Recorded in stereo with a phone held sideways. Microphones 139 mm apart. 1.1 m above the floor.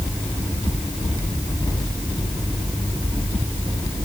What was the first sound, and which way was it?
Only background noise.